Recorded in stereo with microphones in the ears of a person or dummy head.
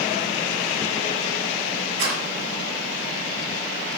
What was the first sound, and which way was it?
A rattle, 75° right (ahead or behind).